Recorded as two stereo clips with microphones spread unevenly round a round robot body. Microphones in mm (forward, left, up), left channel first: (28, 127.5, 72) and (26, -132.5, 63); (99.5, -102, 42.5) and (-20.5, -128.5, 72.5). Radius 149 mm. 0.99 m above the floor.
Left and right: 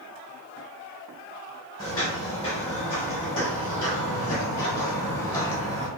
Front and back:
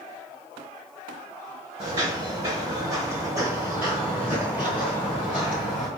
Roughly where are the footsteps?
Behind.